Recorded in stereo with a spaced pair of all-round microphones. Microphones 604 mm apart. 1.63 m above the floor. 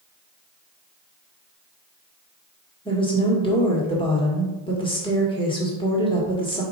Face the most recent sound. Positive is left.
turn(degrees=10)  # may be behind; listen again after turning